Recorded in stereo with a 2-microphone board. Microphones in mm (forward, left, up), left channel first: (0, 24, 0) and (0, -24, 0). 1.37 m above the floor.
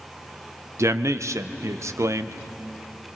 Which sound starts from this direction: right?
A man speaking, at 0.8 s.